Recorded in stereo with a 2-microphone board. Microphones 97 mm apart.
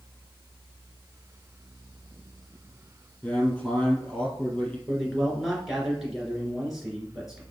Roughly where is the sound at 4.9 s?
Centre.